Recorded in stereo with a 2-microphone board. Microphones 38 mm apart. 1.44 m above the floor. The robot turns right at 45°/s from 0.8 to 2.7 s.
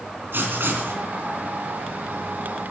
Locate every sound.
0.3 s writing: 65° right (ahead or behind), 3 m; by 1.0 s 70° right (ahead or behind), 3 m